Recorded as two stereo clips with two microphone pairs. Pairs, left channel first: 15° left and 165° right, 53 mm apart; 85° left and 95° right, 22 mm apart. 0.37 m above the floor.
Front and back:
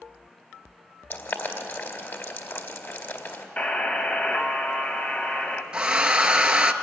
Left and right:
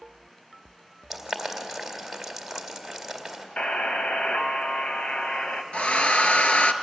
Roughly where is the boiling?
Ahead.